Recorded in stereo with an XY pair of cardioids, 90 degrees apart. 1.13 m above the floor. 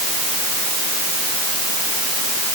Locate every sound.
Only background noise.